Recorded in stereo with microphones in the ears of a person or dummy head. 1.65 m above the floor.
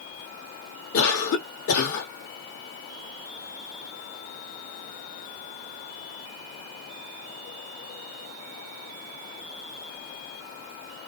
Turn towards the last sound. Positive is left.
turn(degrees=70)  # may be behind; listen again after turning